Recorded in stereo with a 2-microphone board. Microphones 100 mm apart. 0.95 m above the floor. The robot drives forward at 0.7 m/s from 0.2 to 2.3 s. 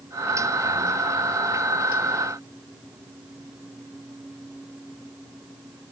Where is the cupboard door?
No cupboard door in this recording.